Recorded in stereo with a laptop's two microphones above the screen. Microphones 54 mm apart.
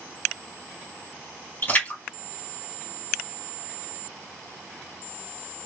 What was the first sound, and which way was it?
A splash, 40° left (ahead or behind).